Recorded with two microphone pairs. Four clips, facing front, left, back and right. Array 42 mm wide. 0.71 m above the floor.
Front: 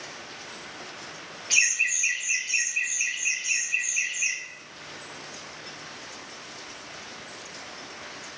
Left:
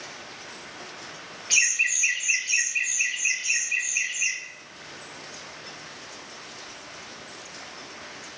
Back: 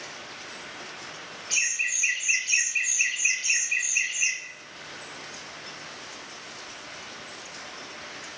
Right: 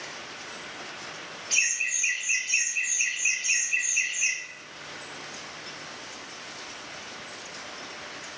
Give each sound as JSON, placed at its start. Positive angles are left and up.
{"t": 1.5, "sound": "laughter", "azimuth_deg": 65, "distance_m": 0.8}